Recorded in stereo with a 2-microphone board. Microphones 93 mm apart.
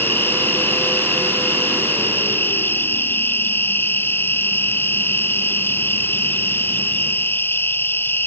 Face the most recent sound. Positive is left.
turn(degrees=25)  # may be behind; listen again after turning